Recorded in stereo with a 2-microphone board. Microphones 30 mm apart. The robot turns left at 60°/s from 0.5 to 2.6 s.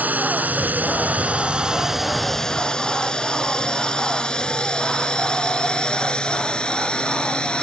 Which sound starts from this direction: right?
A drone, at 0.0 s.